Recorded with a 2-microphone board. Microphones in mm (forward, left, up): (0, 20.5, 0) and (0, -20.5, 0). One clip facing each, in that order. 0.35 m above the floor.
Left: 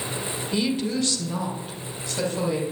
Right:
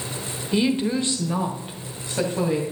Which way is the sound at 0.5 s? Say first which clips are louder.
Right 4 dB; 20° right (ahead or behind).